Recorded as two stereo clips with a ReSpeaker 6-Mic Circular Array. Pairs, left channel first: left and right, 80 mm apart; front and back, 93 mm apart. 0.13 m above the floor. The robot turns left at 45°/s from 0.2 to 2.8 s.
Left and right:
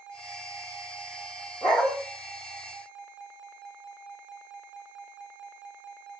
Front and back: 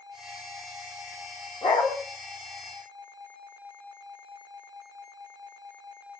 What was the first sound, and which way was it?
A dog barking, 10° left.